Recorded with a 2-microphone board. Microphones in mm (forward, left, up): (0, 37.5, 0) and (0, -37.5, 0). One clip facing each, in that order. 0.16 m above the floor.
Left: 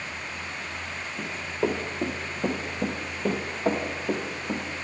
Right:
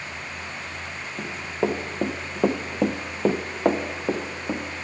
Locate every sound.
1.2 s running footsteps: 20° right (ahead or behind), 1.4 m; by 4.6 s 45° right (ahead or behind), 1.9 m